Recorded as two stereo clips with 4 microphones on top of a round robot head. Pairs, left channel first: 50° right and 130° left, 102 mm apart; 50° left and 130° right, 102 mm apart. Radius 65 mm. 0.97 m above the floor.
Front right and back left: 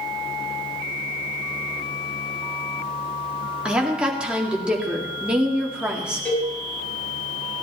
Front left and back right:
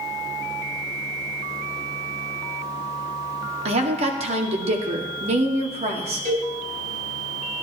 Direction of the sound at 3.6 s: 150° right.